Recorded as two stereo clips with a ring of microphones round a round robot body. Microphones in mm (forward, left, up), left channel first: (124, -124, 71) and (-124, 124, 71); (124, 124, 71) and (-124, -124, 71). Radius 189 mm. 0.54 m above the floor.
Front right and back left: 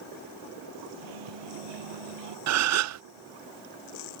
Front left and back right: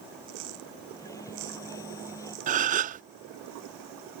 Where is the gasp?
160° left.